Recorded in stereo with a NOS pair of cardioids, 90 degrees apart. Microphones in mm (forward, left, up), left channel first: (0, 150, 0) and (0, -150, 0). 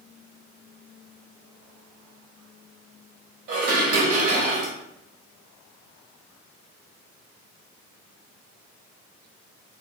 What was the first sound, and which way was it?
Dishes clattering, 55° right.